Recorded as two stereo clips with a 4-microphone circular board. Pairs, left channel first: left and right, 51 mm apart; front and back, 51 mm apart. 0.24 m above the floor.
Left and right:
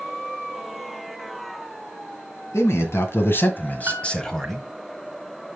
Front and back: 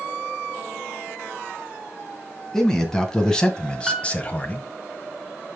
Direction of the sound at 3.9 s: 105° right.